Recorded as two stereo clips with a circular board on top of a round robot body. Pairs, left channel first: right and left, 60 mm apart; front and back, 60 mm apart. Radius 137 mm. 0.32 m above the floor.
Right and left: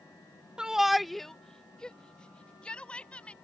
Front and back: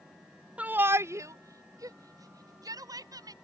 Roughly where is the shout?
Behind left.